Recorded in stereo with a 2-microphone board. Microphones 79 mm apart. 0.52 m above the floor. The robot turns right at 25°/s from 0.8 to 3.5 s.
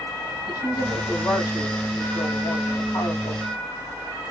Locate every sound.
0.5 s a woman speaking: 50° left, 3 m; by 3.5 s 115° left, 3 m